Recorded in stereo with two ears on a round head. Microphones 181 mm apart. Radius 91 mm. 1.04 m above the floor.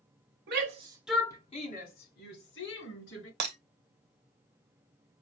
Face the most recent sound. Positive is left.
turn(degrees=-55)  # may be behind; listen again after turning